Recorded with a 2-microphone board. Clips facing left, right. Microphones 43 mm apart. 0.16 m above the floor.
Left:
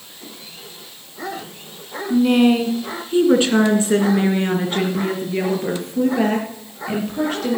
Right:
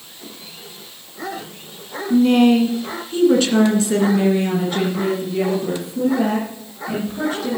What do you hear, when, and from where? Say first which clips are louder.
2.1 s a woman speaking: right 1 dB; centre (ahead or behind), 1.8 m; by 7.6 s 55° left (ahead or behind), 4 m